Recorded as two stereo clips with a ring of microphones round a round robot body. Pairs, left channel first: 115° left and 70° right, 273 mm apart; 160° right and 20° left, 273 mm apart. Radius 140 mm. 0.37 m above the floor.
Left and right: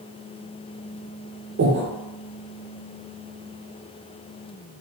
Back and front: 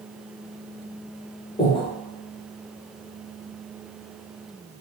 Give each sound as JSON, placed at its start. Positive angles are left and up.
{"t": 1.6, "sound": "breathing", "azimuth_deg": -95, "distance_m": 1.0}